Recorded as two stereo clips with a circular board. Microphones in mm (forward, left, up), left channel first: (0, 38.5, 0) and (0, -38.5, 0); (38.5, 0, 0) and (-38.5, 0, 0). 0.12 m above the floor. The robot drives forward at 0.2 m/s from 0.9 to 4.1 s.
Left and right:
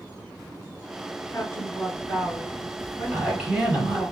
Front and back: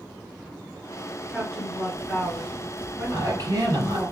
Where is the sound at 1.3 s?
75° left, 1.3 m; by 4.1 s 115° left, 1.4 m.